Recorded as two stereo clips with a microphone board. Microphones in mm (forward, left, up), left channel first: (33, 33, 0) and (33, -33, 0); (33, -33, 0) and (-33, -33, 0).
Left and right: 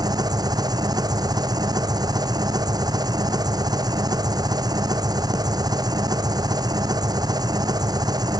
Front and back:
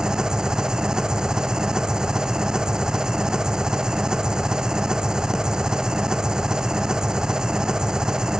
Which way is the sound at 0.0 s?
100° right.